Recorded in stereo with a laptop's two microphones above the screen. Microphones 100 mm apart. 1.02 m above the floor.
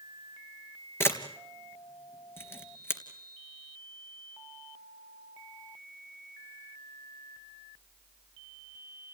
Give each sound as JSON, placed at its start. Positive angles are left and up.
{"t": 1.0, "sound": "a camera shutter", "side_deg": 20, "distance_m": 3.0}